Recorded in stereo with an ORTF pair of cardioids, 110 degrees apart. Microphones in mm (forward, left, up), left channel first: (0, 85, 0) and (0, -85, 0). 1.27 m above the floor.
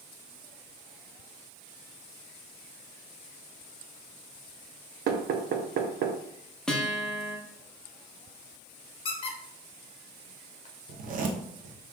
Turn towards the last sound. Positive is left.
turn(degrees=-55)